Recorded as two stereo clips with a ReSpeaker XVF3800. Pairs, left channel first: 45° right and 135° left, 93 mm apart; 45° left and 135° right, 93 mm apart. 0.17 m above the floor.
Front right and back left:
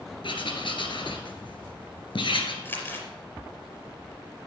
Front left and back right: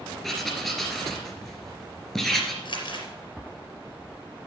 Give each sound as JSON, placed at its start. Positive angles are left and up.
{"t": 0.2, "sound": "writing", "azimuth_deg": -40, "distance_m": 2.0}
{"t": 2.6, "sound": "crumpling", "azimuth_deg": 15, "distance_m": 4.0}